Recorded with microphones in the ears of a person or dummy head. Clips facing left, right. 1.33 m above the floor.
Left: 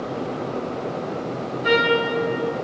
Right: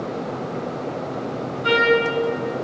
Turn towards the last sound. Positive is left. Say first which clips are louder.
# right 1 dB
turn(degrees=-20)  # may be behind; listen again after turning